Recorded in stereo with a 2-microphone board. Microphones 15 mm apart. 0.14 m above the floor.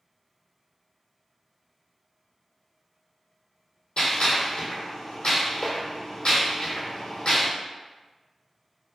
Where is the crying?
I don't hear crying.